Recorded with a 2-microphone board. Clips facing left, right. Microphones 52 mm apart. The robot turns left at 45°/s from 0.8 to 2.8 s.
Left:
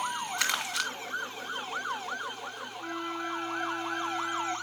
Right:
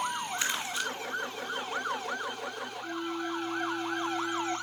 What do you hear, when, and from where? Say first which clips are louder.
0.4 s crumpling: left 2 dB; 75° left (ahead or behind), 1.6 m; by 0.9 s 70° left (ahead or behind), 1.6 m
2.8 s a flute: even; 45° left (ahead or behind), 1.2 m